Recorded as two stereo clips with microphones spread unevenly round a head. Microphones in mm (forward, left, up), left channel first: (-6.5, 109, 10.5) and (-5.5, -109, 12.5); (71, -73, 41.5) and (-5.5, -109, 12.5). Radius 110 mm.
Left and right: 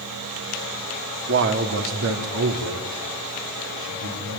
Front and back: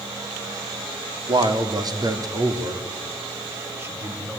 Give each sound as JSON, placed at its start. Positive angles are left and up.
{"t": 1.3, "sound": "a man speaking", "azimuth_deg": -130, "distance_m": 2.5}